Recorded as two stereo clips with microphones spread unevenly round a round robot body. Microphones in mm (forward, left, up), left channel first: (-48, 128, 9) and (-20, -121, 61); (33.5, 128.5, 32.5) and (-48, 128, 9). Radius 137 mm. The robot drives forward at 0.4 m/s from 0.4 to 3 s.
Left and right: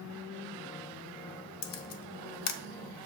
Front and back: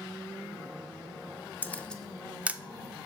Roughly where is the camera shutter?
Ahead left.